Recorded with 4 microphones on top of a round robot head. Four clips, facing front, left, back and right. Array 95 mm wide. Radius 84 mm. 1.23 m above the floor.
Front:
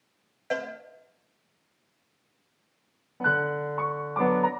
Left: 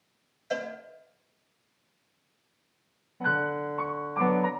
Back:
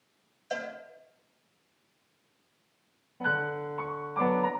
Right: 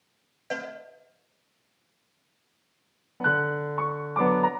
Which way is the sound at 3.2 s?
60° right.